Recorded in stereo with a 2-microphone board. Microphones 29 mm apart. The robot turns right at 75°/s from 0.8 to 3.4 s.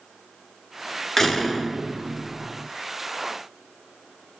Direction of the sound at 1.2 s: 160° left.